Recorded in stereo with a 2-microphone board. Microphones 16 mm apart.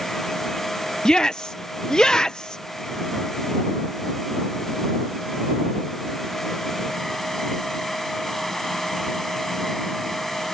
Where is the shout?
50° left (ahead or behind).